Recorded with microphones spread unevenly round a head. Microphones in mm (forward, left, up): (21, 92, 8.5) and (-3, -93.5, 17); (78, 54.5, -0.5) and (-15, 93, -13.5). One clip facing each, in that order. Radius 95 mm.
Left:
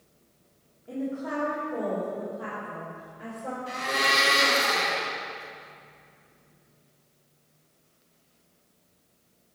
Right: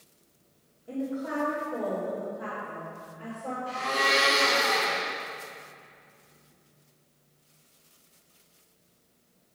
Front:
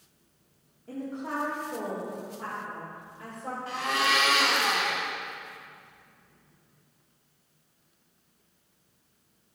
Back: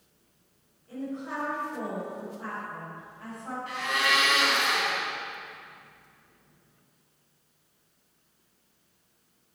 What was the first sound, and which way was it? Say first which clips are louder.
A woman speaking: even, front 1 dB; 10° right.